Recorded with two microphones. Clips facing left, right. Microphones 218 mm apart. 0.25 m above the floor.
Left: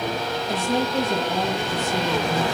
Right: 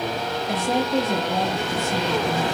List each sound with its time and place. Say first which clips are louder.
0.5 s a woman speaking: right 1 dB; 75° right (ahead or behind), 6 m